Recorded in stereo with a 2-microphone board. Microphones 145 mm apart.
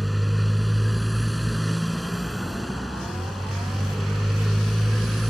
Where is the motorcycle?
Centre (ahead or behind).